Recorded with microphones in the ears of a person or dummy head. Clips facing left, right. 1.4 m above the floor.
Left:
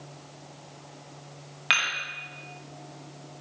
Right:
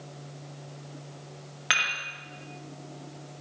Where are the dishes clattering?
10° right (ahead or behind), 2 m.